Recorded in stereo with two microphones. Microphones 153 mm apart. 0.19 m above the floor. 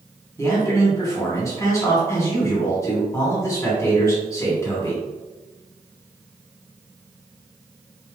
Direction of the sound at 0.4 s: 20° left (ahead or behind).